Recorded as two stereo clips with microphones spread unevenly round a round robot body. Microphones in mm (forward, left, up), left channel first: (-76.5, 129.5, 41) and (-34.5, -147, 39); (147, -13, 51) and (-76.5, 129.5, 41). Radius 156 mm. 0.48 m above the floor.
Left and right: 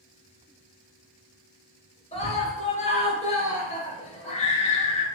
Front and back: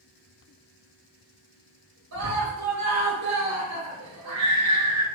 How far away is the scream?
About 1.8 m.